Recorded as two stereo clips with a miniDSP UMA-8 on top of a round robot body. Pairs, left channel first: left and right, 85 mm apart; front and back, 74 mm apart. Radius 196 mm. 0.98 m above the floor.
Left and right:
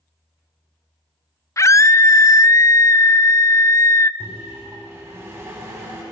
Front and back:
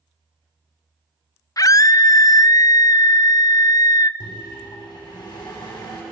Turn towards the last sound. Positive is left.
turn(degrees=-30)